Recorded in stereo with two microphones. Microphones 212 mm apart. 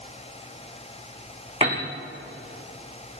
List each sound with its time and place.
1.6 s a piano: 30° right (ahead or behind), 5 m